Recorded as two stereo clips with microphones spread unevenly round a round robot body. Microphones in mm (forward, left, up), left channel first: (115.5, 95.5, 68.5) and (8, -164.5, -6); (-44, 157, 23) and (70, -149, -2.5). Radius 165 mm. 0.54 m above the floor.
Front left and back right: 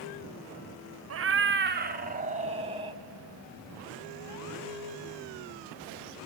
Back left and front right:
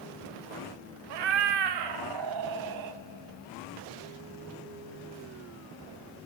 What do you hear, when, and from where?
1.1 s a cat meowing: 75° right, 1.1 m; by 3.0 s 40° right, 2.0 m